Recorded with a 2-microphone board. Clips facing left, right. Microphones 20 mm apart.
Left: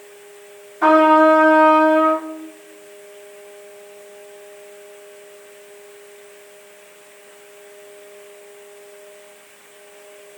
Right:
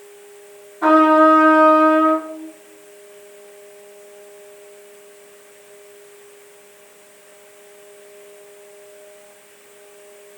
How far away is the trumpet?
About 1.9 m.